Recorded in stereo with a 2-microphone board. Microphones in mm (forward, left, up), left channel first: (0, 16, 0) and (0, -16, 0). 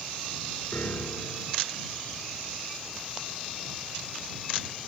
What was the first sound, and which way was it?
A piano, 85° left.